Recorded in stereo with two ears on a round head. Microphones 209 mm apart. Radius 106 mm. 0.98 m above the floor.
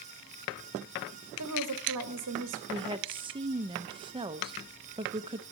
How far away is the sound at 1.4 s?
About 1.7 m.